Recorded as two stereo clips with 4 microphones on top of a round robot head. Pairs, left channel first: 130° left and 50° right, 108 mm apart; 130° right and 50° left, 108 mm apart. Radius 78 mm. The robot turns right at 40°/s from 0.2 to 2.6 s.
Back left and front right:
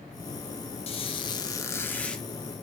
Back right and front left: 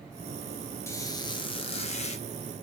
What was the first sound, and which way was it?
A squeak, 165° left.